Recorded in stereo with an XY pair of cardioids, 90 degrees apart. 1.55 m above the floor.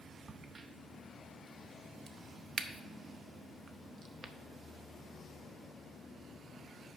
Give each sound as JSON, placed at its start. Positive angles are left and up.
{"t": 0.3, "sound": "a crack", "azimuth_deg": -45, "distance_m": 0.7}